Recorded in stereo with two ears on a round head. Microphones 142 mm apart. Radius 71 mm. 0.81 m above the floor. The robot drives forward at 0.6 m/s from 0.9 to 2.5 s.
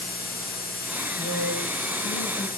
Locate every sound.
1.2 s a woman speaking: 70° right (ahead or behind), 4.5 m; by 2.5 s 60° right (ahead or behind), 5 m